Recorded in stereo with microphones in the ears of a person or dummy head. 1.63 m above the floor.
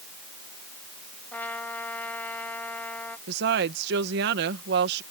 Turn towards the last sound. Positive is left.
turn(degrees=-65)  # may be behind; listen again after turning